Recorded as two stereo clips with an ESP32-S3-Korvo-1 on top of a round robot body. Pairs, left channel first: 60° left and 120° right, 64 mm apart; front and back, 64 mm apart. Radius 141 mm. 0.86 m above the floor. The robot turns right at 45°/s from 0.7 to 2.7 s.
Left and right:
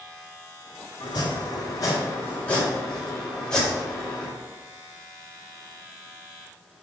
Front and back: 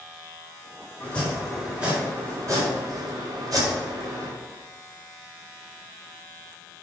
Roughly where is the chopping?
Ahead left.